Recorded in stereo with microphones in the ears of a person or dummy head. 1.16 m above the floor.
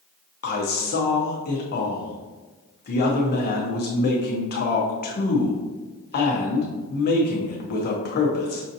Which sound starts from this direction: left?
A man speaking, at 0.4 s.